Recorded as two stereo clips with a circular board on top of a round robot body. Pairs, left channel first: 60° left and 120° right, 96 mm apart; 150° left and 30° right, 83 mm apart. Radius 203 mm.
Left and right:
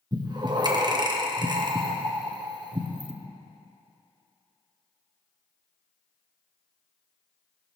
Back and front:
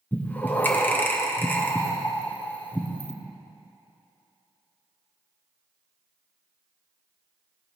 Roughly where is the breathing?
Behind right.